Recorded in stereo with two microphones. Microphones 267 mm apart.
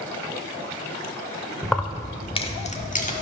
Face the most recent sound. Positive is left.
turn(degrees=30)  # may be behind; listen again after turning